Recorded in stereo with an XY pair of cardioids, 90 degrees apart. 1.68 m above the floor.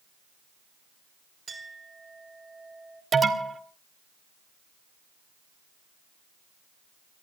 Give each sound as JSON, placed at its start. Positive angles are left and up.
{"t": 1.5, "sound": "a clink", "azimuth_deg": -30, "distance_m": 4.5}
{"t": 3.1, "sound": "an alarm", "azimuth_deg": -35, "distance_m": 2.0}